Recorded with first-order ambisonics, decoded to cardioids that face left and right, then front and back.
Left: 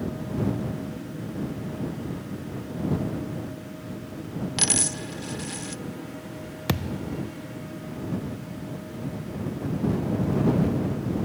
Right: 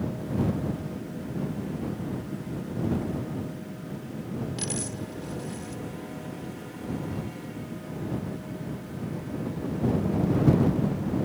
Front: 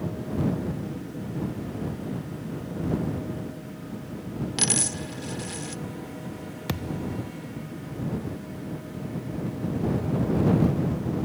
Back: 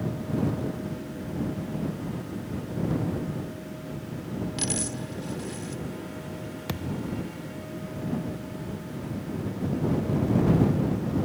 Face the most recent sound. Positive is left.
turn(degrees=80)